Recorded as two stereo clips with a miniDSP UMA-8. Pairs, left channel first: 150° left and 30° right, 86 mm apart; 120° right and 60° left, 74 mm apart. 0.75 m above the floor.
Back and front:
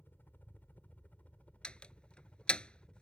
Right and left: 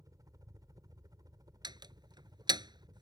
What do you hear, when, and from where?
0.0 s a helicopter: 85° left; by 3.0 s 70° left
1.6 s a door slam: 70° left